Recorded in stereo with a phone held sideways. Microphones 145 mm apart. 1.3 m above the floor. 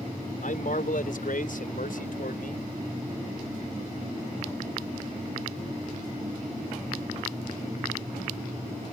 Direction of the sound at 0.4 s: 70° left (ahead or behind).